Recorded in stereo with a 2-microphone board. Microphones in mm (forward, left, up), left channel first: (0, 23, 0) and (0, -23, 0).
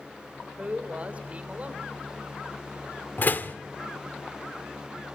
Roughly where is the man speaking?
Right.